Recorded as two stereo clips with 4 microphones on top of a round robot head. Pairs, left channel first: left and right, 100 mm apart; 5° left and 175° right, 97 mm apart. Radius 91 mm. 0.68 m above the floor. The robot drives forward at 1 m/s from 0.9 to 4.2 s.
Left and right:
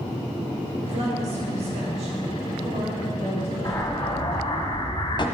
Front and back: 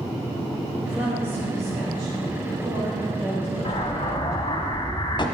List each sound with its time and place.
0.9 s a woman speaking: 90° right, 3 m; by 4.6 s 140° right, 4.5 m
3.6 s an explosion: 35° left, 1.7 m; by 5.2 s 45° left, 1.2 m